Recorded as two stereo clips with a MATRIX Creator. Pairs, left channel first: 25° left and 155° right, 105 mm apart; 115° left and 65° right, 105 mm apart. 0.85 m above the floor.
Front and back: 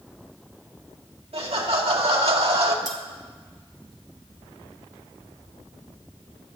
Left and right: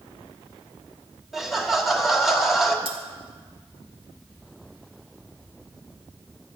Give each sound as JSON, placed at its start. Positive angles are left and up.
{"t": 1.3, "sound": "laughter", "azimuth_deg": -155, "distance_m": 2.0}
{"t": 2.9, "sound": "cutlery clinking", "azimuth_deg": -30, "distance_m": 2.0}